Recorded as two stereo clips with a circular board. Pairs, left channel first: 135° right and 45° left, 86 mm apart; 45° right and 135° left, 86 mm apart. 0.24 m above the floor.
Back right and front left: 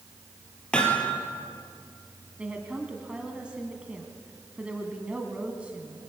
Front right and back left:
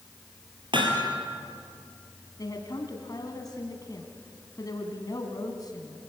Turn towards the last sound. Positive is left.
turn(degrees=-30)